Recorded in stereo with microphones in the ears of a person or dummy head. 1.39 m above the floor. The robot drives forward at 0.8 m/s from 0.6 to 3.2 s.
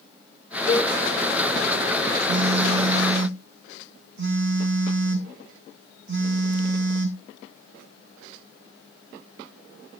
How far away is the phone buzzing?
About 1.7 m.